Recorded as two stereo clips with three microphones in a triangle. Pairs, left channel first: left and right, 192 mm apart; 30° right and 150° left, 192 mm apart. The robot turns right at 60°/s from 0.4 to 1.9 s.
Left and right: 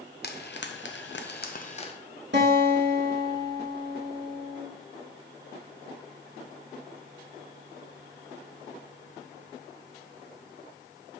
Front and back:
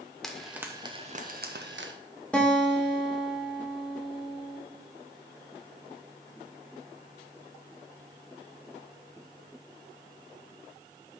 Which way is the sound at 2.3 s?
115° right.